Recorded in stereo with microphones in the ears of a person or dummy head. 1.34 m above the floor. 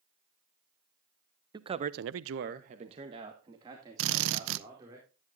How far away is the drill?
About 0.7 m.